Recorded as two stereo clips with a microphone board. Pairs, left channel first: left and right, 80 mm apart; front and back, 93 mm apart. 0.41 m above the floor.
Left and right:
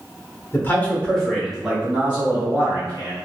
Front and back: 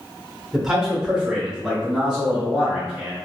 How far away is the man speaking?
About 1.0 m.